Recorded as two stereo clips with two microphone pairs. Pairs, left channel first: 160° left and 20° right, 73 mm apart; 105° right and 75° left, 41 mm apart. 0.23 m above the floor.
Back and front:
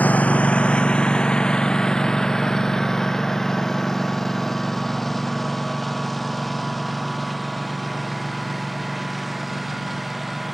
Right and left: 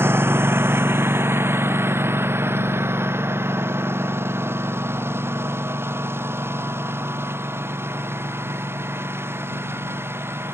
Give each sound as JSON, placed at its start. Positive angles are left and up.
{"t": 0.0, "sound": "a lawn mower", "azimuth_deg": 90}